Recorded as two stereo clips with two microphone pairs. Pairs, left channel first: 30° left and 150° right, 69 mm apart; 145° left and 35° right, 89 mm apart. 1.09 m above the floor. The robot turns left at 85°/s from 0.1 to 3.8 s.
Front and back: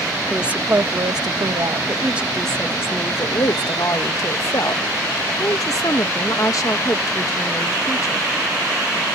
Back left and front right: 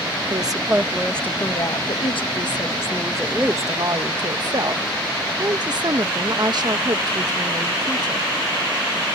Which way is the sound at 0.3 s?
65° right.